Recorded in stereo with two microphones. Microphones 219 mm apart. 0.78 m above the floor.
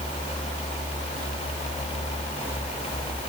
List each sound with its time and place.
Only background noise.